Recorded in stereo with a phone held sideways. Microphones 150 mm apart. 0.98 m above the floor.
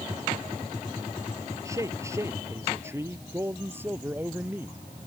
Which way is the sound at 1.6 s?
20° right (ahead or behind).